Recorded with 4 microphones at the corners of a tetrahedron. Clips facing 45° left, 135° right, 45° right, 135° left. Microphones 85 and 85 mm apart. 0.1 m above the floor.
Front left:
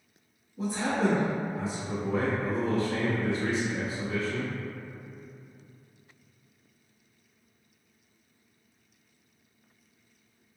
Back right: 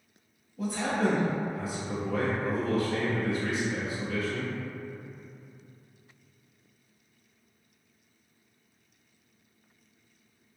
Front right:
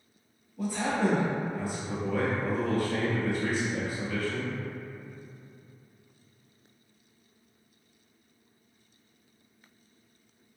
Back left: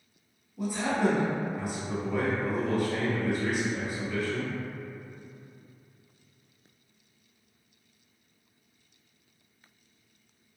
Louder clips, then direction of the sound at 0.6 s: Front left 1 dB, back left 1 dB; 75° left.